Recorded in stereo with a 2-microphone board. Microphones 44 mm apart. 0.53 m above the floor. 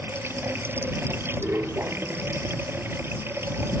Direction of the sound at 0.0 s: 65° right (ahead or behind).